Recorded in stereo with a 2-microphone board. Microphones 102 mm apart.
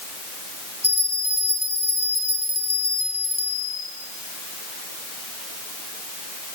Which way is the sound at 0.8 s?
75° right (ahead or behind).